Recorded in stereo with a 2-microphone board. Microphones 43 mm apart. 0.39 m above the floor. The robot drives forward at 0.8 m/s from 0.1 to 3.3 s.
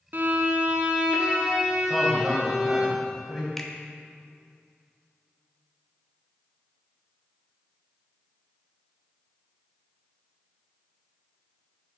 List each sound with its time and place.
0.1 s a violin: 55° right (ahead or behind), 0.7 m; by 2.9 s 10° right (ahead or behind), 2.5 m
1.9 s a man speaking: 5° right (ahead or behind), 1.9 m
3.6 s a finger snap: 10° left (ahead or behind), 0.8 m